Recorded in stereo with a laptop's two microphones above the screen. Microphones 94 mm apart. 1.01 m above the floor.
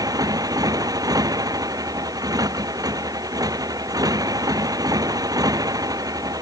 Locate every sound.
0.0 s a motorcycle: 45° right (ahead or behind)